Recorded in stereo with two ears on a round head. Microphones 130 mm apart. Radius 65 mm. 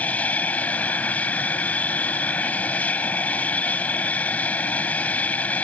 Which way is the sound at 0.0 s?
10° left (ahead or behind).